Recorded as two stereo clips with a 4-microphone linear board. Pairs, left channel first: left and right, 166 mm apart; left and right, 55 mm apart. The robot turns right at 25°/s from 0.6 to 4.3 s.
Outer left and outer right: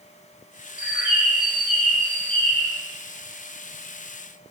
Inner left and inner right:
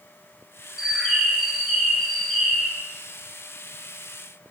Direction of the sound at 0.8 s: 5° right (ahead or behind).